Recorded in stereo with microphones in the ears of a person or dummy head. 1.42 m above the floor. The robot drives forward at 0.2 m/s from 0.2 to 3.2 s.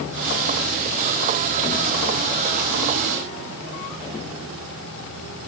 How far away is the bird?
I don't hear a bird.